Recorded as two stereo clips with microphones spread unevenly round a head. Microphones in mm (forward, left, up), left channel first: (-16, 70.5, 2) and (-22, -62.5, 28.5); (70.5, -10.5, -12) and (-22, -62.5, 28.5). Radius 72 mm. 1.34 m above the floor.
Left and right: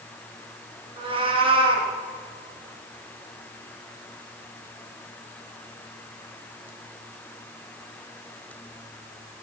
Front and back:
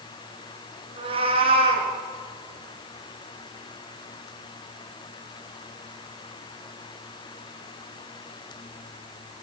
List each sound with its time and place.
1.0 s a cat meowing: 140° right, 3.5 m